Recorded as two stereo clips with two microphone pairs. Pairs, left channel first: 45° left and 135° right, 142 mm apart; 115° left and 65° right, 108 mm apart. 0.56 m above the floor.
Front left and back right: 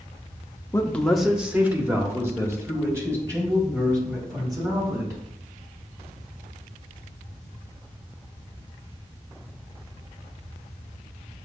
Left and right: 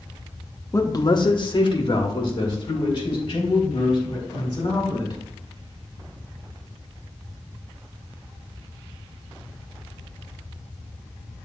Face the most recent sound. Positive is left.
turn(degrees=160)